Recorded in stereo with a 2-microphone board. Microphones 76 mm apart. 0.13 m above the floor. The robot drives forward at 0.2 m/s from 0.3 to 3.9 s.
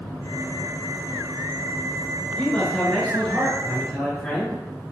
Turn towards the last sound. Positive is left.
turn(degrees=5)  # may be behind; listen again after turning